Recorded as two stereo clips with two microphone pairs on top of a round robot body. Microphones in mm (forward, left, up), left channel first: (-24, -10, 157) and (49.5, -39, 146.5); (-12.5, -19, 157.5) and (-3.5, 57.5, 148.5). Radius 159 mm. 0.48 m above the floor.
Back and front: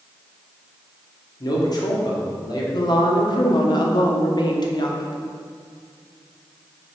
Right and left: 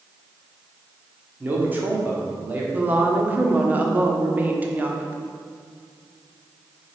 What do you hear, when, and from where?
1.4 s a man speaking: 135° left, 1.8 m
2.7 s a woman speaking: 140° left, 1.3 m